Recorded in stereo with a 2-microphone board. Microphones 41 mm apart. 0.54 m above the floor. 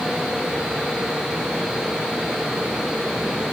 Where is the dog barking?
I don't hear a dog barking.